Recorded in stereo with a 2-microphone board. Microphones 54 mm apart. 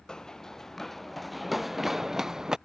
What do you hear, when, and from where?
0.1 s running footsteps: 10° left (ahead or behind); by 2.6 s 10° right (ahead or behind)